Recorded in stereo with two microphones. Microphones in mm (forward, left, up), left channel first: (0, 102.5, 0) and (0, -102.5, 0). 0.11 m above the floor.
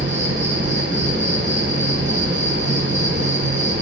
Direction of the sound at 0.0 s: 60° right (ahead or behind).